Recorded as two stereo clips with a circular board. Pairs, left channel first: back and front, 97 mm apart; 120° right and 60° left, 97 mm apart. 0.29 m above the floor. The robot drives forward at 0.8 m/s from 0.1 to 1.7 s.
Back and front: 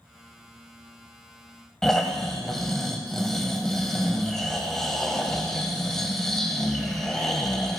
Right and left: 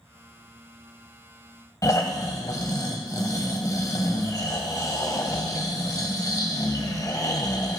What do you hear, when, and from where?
1.8 s snoring: 95° right, 1.3 m